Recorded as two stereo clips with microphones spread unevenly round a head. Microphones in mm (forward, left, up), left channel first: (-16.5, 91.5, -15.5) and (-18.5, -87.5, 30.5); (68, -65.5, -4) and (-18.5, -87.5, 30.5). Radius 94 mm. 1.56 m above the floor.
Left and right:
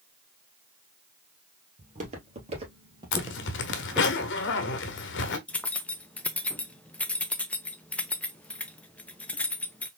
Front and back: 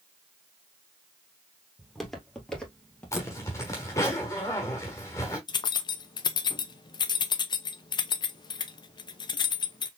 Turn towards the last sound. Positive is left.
turn(degrees=-15)